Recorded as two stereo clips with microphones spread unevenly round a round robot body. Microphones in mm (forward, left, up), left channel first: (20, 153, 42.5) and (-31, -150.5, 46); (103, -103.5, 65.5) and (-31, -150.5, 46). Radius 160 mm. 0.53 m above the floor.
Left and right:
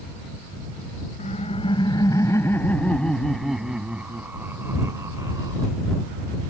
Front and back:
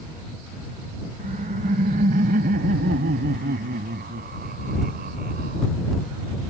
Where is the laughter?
150° left; by 5.7 s straight behind.